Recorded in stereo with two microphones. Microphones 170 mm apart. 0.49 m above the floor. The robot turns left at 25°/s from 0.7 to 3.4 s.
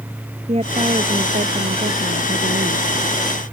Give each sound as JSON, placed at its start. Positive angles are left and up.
{"t": 0.5, "sound": "a woman speaking", "azimuth_deg": -40}